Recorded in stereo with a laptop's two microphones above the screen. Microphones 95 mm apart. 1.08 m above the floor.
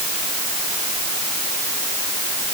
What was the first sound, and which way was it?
Only background noise.